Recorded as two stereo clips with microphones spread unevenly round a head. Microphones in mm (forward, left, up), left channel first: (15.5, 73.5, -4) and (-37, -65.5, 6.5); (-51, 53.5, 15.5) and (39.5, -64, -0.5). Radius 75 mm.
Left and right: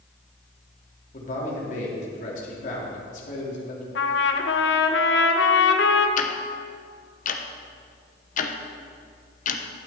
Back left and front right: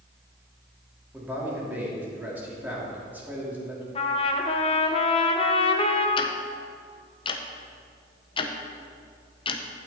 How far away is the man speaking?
About 2.5 m.